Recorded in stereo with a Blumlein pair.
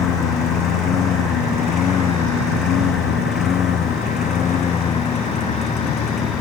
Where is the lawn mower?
30° left; by 6.4 s 25° left.